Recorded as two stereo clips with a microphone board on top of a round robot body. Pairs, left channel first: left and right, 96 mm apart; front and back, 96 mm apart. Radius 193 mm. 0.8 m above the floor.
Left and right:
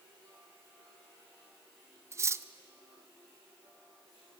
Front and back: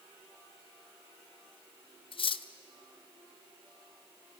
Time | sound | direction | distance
2.1 | cutlery clinking | 30° right | 0.6 m